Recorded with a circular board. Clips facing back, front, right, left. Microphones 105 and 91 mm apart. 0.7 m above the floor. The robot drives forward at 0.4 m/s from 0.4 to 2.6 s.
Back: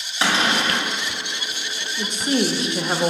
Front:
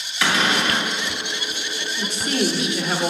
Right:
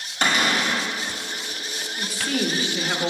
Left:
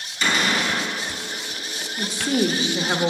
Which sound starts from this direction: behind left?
A woman speaking, at 2.0 s.